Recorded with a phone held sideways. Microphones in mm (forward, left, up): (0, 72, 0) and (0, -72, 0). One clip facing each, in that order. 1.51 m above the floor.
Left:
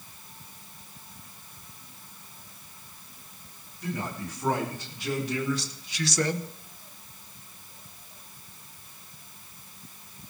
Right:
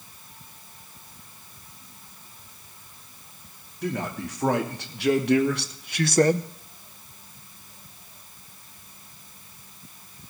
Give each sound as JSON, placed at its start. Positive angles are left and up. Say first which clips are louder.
{"t": 3.8, "sound": "a man speaking", "louder": "right 4 dB", "side_deg": -75, "distance_m": 3.0}